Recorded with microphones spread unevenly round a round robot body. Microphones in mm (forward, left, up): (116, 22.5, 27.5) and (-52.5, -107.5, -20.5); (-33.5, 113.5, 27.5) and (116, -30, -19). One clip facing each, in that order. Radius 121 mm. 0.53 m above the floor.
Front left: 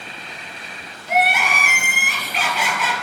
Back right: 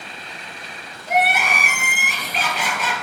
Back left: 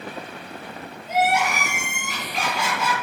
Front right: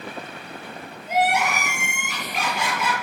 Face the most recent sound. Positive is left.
turn(degrees=-95)